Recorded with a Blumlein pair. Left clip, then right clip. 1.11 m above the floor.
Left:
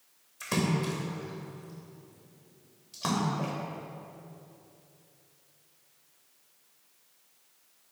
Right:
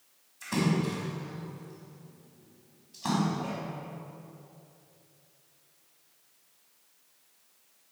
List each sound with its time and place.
0.4 s a splash: 55° left, 3 m